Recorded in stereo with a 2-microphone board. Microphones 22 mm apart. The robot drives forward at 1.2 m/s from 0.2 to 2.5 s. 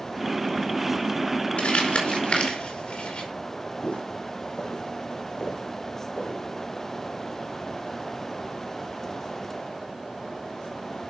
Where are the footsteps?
50° left (ahead or behind), 3.5 m; by 6.4 s 35° left (ahead or behind), 5.5 m.